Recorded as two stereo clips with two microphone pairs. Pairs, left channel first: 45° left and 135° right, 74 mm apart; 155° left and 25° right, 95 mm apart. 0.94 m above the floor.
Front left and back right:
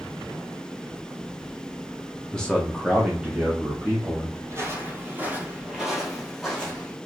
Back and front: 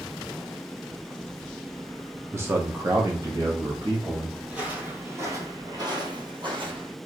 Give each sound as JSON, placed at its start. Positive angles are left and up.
{"t": 2.3, "sound": "a man speaking", "azimuth_deg": -10, "distance_m": 0.6}
{"t": 4.5, "sound": "footsteps", "azimuth_deg": -100, "distance_m": 1.5}